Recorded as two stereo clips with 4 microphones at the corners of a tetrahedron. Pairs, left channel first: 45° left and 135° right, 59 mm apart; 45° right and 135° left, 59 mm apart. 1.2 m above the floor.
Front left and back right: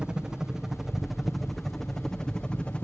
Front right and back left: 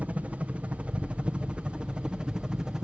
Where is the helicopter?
165° left; by 2.8 s 75° left.